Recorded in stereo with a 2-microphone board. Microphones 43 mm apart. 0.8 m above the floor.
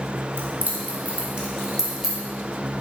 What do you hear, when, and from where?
0.4 s keys jangling: 60° right (ahead or behind), 1.3 m; by 2.2 s 5° right (ahead or behind), 2.0 m